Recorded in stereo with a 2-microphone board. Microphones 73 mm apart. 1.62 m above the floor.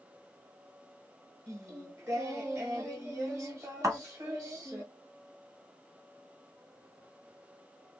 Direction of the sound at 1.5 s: 45° right (ahead or behind).